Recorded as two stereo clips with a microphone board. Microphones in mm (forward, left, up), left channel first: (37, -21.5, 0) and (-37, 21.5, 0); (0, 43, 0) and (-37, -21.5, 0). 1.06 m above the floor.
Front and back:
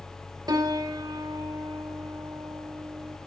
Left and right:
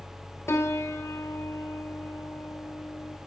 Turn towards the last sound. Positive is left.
turn(degrees=110)